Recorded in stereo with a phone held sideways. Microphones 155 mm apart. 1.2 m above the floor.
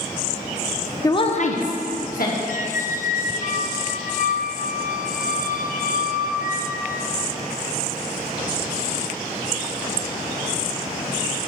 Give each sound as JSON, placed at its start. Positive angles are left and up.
{"t": 1.0, "sound": "a woman speaking", "side_deg": 20, "distance_m": 0.7}
{"t": 2.5, "sound": "a squeak", "side_deg": 55, "distance_m": 0.5}